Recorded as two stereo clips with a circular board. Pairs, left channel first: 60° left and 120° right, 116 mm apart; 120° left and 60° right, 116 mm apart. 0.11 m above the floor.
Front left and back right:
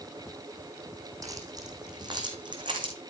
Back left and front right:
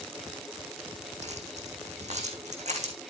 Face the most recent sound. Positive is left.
turn(degrees=-75)